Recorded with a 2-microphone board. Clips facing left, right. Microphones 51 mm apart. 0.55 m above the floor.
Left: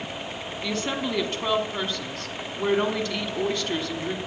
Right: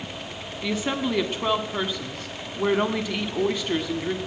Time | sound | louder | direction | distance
0.6 | a woman speaking | right 2 dB | 10° right (ahead or behind) | 1.3 m